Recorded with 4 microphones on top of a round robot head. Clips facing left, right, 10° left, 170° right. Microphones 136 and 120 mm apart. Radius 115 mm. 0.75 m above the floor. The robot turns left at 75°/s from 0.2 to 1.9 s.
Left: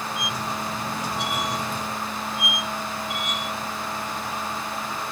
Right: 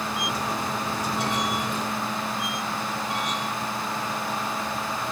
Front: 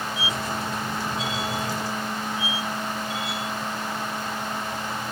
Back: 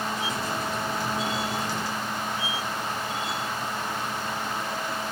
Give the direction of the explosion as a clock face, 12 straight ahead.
No explosion in this recording.